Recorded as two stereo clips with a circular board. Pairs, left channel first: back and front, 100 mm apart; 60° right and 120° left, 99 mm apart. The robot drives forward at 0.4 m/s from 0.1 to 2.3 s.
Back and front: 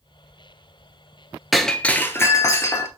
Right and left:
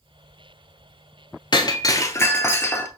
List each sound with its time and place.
1.5 s breaking glass: 90° right, 0.6 m; by 2.9 s 125° right, 0.7 m